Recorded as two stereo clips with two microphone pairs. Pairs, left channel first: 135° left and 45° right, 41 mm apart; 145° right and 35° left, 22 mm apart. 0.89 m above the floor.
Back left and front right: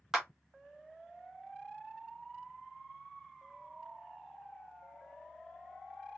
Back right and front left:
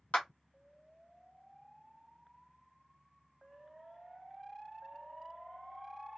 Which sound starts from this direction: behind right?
A clap, at 0.1 s.